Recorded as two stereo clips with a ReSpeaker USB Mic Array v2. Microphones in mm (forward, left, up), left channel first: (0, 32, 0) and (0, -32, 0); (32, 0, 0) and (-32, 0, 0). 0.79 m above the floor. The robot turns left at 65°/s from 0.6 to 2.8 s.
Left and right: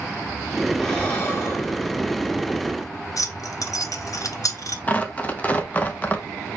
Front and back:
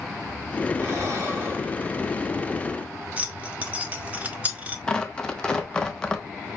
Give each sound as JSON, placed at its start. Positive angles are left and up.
{"t": 0.8, "sound": "breathing", "azimuth_deg": 170, "distance_m": 1.5}
{"t": 3.2, "sound": "keys jangling", "azimuth_deg": 110, "distance_m": 0.8}
{"t": 4.9, "sound": "tearing paper", "azimuth_deg": 65, "distance_m": 0.7}